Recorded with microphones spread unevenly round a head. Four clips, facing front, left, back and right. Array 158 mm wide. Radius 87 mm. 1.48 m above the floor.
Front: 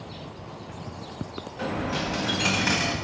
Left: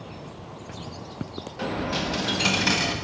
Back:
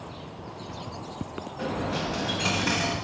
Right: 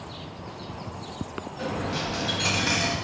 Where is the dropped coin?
160° left, 0.9 m.